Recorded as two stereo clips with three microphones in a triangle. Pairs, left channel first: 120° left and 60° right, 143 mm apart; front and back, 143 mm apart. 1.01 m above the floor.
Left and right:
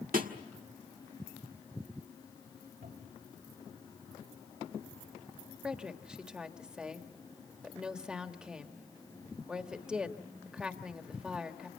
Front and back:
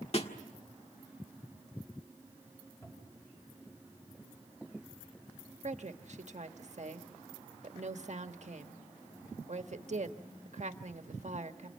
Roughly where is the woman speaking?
Behind right.